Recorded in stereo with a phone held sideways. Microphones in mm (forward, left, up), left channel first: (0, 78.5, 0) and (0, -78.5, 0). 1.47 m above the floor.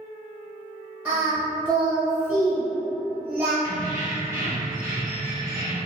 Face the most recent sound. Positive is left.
turn(degrees=-20)  # may be behind; listen again after turning